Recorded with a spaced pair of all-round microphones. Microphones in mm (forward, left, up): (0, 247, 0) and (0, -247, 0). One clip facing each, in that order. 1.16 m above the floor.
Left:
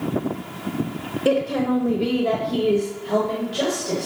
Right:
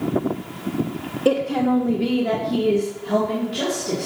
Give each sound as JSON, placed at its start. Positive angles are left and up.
{"t": 1.2, "sound": "a woman speaking", "side_deg": 5, "distance_m": 0.7}